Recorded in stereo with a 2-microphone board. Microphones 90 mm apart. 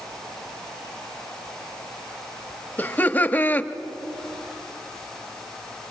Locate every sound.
2.8 s laughter: 20° left (ahead or behind), 0.8 m